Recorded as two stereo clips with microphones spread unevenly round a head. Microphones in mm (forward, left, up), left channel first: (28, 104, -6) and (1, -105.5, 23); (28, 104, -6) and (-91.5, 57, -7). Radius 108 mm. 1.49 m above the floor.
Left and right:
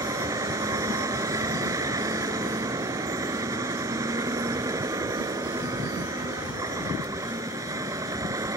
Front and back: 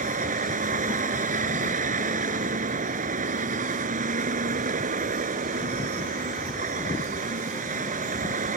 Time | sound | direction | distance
0.0 | a vehicle | 175° right | ?